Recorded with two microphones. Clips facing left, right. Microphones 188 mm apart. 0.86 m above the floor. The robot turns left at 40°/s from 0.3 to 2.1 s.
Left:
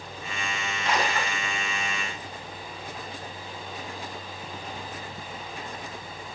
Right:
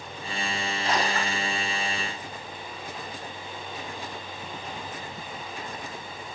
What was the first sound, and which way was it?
A splash, 35° right (ahead or behind).